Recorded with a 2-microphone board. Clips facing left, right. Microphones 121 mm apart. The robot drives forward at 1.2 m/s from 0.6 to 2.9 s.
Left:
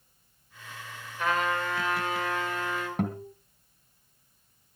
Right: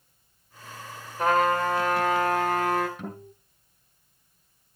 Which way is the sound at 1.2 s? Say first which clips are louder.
Right 6 dB; 45° right (ahead or behind).